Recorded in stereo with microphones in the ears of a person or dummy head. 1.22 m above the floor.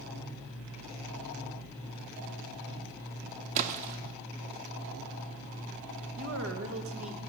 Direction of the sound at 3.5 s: 45° right (ahead or behind).